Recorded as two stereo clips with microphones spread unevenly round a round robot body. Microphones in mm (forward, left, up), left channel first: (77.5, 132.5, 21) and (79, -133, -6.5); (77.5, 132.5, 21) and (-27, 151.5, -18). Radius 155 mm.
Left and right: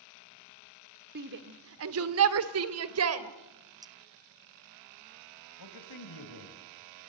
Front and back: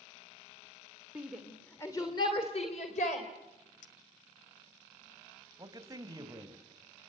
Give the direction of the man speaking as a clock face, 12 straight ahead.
8 o'clock.